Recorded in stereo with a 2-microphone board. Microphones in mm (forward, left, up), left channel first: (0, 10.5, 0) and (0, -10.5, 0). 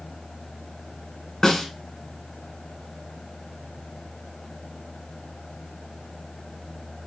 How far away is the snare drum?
About 1.6 m.